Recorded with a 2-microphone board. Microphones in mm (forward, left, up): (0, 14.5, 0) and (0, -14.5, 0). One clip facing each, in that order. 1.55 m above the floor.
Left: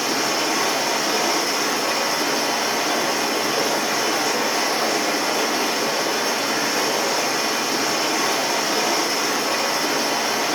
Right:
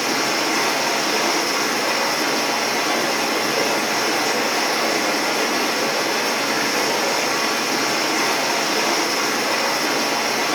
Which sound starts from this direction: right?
Running water, at 0.0 s.